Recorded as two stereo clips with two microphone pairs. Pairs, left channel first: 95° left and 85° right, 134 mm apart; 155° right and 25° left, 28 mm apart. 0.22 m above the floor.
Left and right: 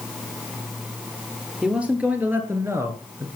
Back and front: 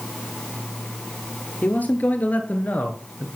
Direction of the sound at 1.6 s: 165° right.